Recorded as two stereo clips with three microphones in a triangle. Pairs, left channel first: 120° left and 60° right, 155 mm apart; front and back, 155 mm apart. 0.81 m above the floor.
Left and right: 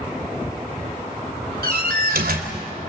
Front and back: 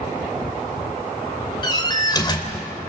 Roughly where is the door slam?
Ahead right.